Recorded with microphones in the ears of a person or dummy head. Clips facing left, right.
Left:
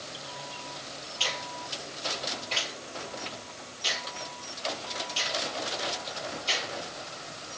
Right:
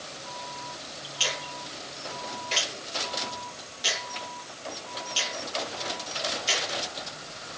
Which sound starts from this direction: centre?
A finger snap, at 1.2 s.